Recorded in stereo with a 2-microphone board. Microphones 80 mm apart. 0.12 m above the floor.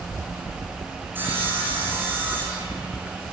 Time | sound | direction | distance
1.1 | sawing | 25° right (ahead or behind) | 6 m